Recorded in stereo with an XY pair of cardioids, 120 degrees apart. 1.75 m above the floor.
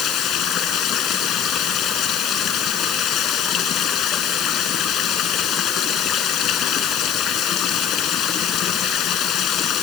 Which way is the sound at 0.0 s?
60° left.